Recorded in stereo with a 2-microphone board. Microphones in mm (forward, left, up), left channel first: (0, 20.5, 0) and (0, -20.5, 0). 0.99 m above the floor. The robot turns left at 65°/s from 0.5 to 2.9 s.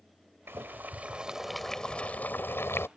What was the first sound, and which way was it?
Boiling, 115° right.